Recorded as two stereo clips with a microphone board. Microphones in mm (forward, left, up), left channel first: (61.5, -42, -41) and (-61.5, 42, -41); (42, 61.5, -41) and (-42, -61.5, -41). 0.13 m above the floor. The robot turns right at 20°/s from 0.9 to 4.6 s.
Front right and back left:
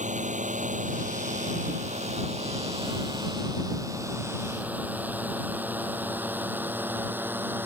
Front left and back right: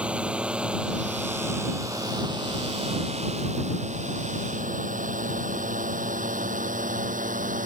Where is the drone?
155° left; by 7.7 s 140° right.